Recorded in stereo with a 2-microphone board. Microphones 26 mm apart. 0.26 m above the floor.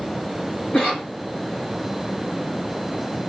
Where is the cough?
55° left (ahead or behind), 2.5 m.